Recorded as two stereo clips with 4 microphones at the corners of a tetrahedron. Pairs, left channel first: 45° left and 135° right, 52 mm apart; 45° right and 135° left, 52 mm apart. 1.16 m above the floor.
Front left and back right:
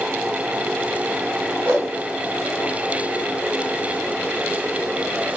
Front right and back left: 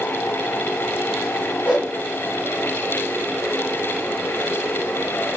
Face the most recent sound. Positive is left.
turn(degrees=-155)